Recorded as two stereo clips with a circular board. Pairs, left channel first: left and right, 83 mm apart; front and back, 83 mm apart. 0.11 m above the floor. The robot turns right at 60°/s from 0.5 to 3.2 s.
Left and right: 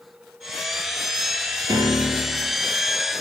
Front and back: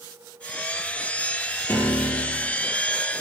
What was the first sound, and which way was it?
A piano, 55° right.